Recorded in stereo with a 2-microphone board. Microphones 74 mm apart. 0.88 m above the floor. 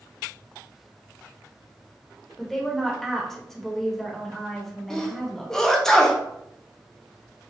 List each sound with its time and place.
2.4 s a woman speaking: 5° left (ahead or behind), 1.0 m
4.9 s a sneeze: 5° left (ahead or behind), 0.6 m